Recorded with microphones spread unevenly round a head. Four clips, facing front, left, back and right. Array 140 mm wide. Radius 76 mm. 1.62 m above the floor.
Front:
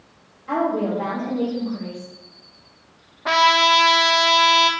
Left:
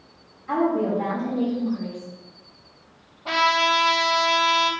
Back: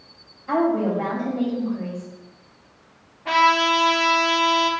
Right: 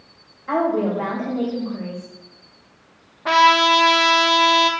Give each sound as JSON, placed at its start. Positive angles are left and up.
{"t": 0.5, "sound": "a woman speaking", "azimuth_deg": -80, "distance_m": 7.0}
{"t": 3.2, "sound": "a trumpet", "azimuth_deg": -45, "distance_m": 1.6}